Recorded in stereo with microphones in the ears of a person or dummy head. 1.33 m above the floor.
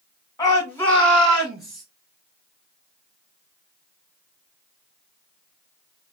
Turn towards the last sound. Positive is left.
turn(degrees=0)  # may be behind; listen again after turning